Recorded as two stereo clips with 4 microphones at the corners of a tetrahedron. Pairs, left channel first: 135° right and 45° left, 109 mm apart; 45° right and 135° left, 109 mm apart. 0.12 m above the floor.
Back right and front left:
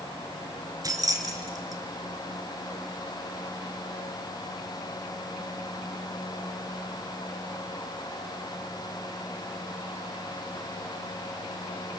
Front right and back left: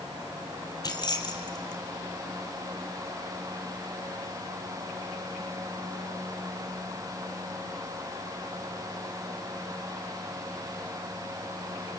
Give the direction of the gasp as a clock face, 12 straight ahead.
I don't hear a gasp.